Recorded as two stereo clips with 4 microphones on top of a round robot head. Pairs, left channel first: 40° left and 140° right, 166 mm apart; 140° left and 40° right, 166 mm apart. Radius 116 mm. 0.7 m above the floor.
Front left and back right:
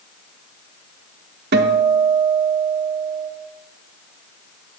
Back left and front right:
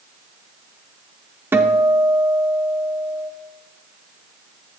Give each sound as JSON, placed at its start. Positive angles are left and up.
{"t": 1.5, "sound": "a guitar", "azimuth_deg": -115, "distance_m": 0.7}